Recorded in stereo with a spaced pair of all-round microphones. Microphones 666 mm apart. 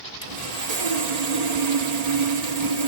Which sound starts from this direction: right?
Sawing, at 0.2 s.